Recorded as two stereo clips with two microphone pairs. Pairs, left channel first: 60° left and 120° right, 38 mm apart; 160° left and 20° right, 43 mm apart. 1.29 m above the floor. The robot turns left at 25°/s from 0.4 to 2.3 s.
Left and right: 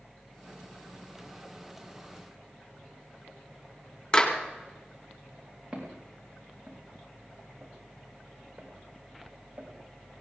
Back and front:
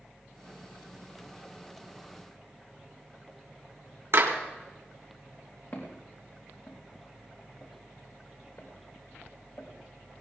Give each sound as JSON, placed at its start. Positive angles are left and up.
{"t": 4.1, "sound": "a clap", "azimuth_deg": 0, "distance_m": 2.5}
{"t": 5.7, "sound": "footsteps", "azimuth_deg": 165, "distance_m": 5.5}